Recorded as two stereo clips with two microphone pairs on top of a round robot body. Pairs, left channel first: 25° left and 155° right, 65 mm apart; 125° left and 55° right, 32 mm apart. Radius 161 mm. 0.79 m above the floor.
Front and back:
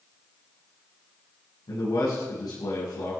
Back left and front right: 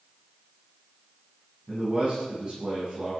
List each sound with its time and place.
1.7 s a man speaking: 5° left, 9 m